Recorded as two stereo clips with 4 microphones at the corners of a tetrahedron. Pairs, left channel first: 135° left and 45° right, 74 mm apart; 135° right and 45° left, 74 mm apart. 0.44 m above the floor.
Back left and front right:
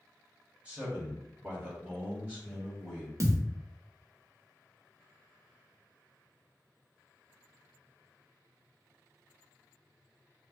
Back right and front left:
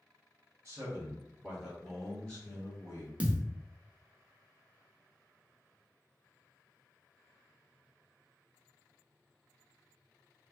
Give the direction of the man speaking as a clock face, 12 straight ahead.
11 o'clock.